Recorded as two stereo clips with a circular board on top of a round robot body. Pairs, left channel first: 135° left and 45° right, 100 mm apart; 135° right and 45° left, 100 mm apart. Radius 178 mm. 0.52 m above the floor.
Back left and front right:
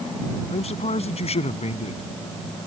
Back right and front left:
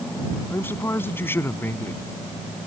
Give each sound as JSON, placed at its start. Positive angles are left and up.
{"t": 0.5, "sound": "a man speaking", "azimuth_deg": 155}